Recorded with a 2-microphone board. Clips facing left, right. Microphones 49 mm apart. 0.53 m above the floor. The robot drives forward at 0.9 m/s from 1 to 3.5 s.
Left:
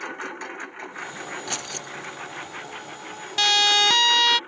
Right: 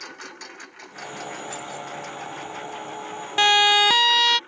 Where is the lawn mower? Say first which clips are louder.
Left 7 dB; 25° left (ahead or behind); by 4.5 s 20° left (ahead or behind).